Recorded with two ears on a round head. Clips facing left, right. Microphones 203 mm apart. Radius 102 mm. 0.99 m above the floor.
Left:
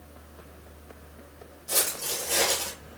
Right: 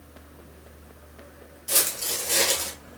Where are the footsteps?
45° right (ahead or behind), 1.3 m; by 2.7 s 20° right (ahead or behind), 1.1 m.